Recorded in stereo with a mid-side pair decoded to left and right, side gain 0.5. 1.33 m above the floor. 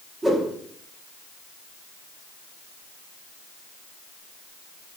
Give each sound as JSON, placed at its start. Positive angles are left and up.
{"t": 0.2, "sound": "a whoosh", "azimuth_deg": -20, "distance_m": 1.0}